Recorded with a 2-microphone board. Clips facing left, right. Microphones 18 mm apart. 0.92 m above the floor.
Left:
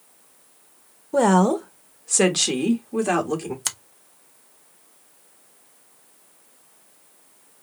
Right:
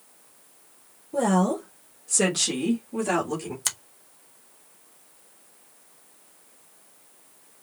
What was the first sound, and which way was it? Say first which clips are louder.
A woman speaking: left 5 dB; 45° left (ahead or behind).